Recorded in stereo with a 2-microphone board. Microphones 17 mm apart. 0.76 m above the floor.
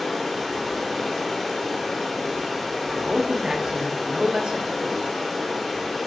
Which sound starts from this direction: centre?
Running water, at 0.0 s.